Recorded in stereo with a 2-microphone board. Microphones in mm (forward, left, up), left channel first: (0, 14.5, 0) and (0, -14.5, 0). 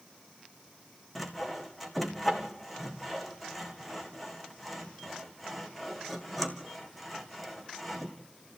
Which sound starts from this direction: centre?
Sawing, at 1.1 s.